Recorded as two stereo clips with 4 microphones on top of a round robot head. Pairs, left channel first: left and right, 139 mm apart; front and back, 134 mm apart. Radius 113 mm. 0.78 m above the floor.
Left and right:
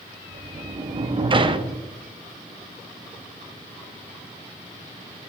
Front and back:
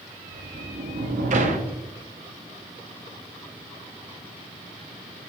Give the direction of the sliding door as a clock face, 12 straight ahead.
5 o'clock.